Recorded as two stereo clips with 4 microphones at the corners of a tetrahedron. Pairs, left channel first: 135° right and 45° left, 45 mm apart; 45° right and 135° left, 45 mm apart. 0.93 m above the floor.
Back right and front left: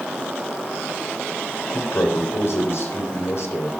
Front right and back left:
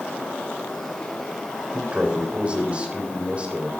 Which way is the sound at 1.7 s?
160° right.